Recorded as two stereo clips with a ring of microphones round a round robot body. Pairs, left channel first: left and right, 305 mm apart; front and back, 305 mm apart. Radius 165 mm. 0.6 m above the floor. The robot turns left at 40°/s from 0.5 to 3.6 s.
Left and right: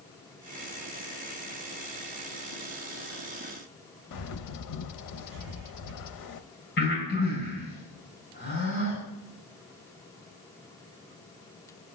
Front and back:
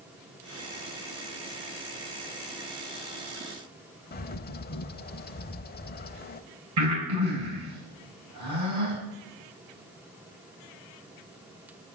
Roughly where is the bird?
Ahead left.